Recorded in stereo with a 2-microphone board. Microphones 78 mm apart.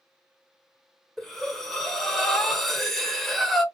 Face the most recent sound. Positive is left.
turn(degrees=5)  # may be behind; listen again after turning